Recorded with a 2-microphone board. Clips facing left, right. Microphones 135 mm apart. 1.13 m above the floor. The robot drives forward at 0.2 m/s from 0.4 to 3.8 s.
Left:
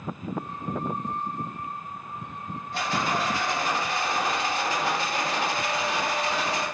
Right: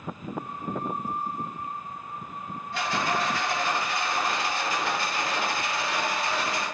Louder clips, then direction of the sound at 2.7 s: Even; 40° left (ahead or behind).